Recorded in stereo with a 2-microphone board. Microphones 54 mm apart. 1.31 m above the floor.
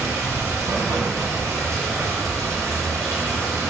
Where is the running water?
80° right, 0.7 m.